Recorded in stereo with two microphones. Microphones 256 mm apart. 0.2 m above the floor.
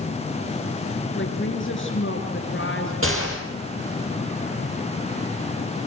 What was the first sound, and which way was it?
A woman speaking, 50° left (ahead or behind).